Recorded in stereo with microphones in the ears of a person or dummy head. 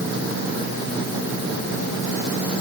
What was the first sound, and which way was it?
Only background noise.